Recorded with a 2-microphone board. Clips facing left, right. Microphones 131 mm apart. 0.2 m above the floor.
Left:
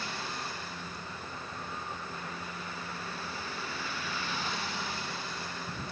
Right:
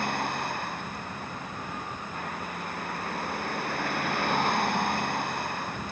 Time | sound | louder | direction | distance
0.0 | a vehicle | right 9 dB | 60° right (ahead or behind) | ?